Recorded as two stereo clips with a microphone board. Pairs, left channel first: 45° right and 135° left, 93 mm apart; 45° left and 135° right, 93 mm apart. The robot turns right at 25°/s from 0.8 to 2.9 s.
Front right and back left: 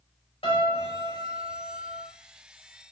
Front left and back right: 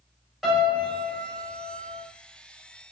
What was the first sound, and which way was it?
A piano, 50° right.